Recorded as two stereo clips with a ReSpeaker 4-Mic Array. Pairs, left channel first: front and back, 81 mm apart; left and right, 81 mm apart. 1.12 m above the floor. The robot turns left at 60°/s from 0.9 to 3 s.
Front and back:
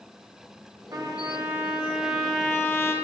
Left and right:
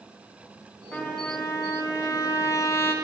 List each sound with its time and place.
0.9 s a trumpet: 165° left, 0.6 m; by 2.9 s 40° left, 0.6 m